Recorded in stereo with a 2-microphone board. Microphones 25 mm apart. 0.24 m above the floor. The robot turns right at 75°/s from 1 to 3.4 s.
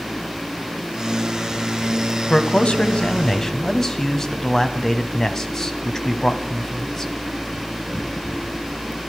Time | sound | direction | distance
2.3 | a man speaking | 70° left | 1.3 m